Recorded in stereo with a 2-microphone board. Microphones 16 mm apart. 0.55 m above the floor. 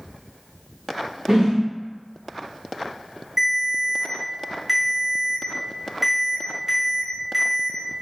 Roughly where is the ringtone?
Right.